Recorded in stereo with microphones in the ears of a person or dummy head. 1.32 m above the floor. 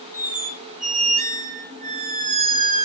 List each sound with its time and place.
0.1 s a squeak: 40° right (ahead or behind), 0.8 m